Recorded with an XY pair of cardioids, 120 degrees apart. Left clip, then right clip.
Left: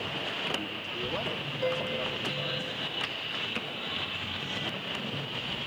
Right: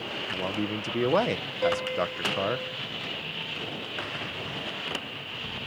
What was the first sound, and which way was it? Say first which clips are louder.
A man speaking: right 2 dB; 70° right.